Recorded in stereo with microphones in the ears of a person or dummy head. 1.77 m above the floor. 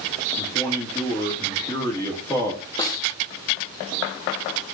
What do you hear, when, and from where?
0.4 s a man speaking: 15° left (ahead or behind), 2.0 m
2.8 s a snare drum: 20° left (ahead or behind), 0.6 m